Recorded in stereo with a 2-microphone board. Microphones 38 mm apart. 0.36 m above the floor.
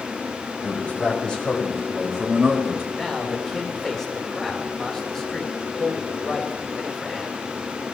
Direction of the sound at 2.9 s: 10° left (ahead or behind).